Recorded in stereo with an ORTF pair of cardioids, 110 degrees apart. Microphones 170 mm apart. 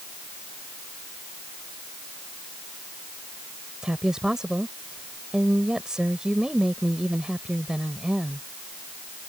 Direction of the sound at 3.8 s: 5° right.